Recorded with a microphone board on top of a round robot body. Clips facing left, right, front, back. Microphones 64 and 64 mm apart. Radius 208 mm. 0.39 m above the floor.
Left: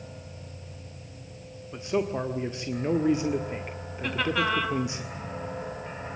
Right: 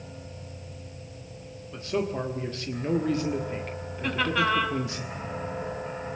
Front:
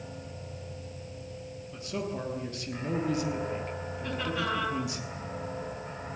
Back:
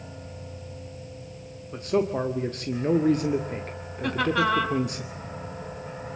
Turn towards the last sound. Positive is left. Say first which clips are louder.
# right 1 dB, back 9 dB
turn(degrees=180)